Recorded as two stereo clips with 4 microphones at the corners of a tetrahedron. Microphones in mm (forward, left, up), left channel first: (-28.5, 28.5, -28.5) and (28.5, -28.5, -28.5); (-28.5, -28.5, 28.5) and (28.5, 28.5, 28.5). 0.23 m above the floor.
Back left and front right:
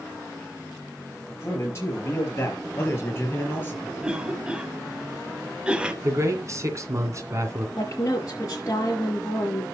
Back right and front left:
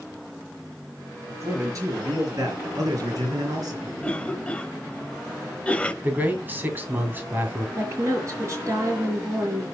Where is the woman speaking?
95° left, 5 m.